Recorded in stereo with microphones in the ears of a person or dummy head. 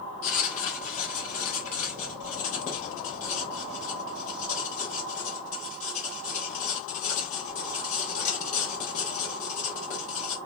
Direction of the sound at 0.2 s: 40° left (ahead or behind).